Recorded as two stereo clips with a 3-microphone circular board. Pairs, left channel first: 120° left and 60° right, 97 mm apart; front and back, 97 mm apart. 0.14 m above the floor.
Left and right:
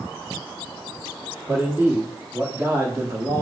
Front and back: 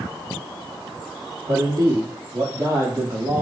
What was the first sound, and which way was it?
A man speaking, 135° right.